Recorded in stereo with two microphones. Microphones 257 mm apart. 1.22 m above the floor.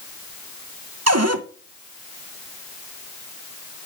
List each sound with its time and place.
1.1 s a cupboard door: 75° right (ahead or behind), 0.6 m